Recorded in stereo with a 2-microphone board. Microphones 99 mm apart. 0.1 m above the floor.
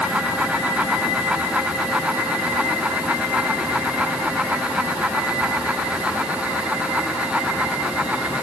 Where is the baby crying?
I don't hear a baby crying.